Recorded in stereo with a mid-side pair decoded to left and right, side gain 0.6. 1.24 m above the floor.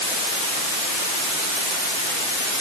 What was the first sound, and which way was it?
Only background noise.